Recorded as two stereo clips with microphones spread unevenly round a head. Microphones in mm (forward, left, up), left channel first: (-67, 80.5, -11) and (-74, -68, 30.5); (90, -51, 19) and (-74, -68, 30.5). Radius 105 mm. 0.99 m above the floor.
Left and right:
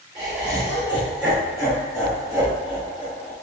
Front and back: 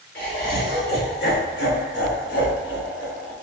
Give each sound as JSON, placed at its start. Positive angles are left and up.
{"t": 0.1, "sound": "laughter", "azimuth_deg": -20, "distance_m": 2.5}